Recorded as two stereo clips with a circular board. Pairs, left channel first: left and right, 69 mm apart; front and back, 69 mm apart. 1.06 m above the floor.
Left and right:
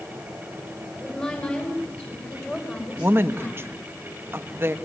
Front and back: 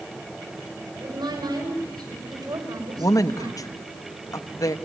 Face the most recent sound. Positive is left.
turn(degrees=-35)